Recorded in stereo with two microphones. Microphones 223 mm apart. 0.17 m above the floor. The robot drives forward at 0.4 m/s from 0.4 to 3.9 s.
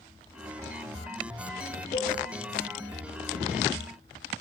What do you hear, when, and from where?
1.9 s a cowbell: 30° left (ahead or behind), 4 m